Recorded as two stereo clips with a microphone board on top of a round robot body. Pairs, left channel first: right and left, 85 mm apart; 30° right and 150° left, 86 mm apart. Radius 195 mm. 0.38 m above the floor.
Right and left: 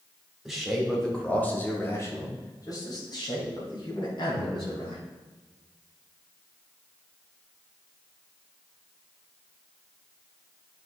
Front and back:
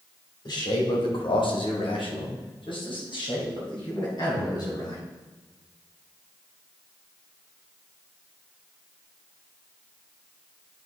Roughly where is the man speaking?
Ahead.